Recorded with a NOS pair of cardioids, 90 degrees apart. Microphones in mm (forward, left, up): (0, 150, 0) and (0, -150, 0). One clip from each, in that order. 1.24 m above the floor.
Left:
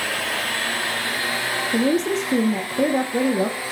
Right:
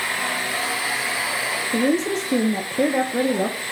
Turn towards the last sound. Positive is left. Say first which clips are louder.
# even
turn(degrees=5)